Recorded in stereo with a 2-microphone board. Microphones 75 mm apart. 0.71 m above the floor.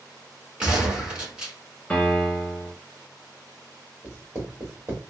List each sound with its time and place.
0.6 s a gunshot: 15° right (ahead or behind), 1.5 m
1.9 s a piano: 15° left (ahead or behind), 1.6 m
4.0 s writing: 30° right (ahead or behind), 2 m